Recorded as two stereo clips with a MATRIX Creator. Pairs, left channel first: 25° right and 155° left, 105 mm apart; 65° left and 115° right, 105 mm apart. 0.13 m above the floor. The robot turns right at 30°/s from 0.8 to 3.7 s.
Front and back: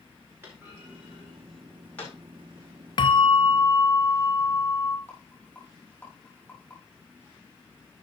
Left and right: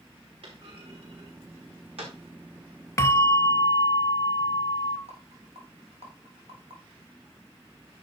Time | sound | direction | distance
0.4 | a clunk | 135° right | 5 m
3.0 | a bell | 10° left | 0.6 m
5.1 | a rattle | 100° right | 4.5 m